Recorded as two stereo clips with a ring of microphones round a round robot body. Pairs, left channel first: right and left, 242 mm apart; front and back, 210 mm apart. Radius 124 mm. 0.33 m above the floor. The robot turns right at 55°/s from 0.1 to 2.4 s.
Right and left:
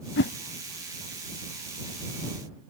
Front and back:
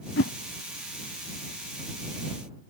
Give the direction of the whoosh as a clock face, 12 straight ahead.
1 o'clock.